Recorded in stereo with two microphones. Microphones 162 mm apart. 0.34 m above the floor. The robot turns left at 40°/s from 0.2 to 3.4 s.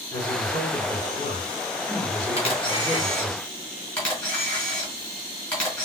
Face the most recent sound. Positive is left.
turn(degrees=5)  # may be behind; listen again after turning